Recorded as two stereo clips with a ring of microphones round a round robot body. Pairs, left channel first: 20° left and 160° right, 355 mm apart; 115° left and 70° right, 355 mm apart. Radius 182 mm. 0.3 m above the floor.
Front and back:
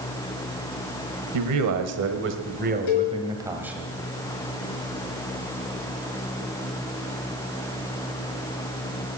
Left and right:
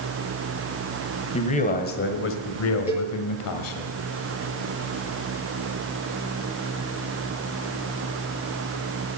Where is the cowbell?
15° left, 4.5 m.